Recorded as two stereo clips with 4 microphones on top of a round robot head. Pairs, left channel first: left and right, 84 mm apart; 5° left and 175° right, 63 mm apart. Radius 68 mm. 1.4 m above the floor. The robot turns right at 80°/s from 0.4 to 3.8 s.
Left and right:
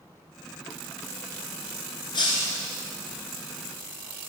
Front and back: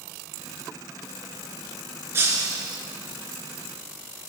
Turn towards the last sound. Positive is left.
turn(degrees=-90)